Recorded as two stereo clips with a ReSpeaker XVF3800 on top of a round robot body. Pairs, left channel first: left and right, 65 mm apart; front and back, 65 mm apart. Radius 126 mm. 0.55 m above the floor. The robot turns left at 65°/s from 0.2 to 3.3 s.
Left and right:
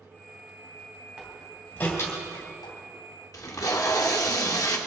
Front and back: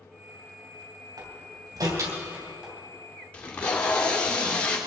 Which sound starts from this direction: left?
Tape being pulled, at 3.3 s.